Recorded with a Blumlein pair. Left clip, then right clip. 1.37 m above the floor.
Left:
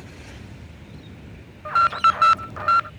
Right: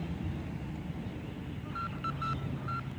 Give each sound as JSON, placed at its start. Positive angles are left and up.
{"t": 1.6, "sound": "an alarm", "azimuth_deg": 40}